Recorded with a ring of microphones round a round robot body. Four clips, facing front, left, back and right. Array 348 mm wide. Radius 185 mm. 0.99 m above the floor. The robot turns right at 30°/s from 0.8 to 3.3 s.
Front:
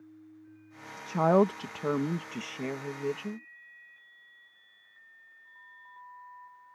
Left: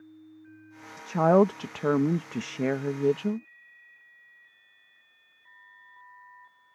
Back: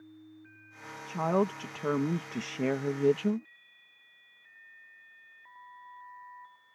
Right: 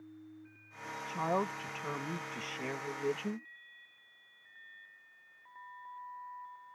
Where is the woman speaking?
65° left; by 3.5 s 135° left.